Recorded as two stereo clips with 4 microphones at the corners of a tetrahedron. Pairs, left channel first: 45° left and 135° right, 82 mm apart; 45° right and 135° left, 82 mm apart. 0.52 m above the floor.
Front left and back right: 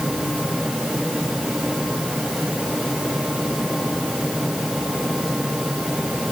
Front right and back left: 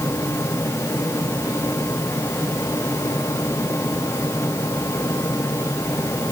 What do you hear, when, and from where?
Only background noise.